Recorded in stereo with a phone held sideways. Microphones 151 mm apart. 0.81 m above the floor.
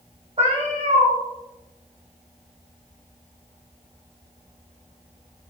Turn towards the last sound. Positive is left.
turn(degrees=-45)  # may be behind; listen again after turning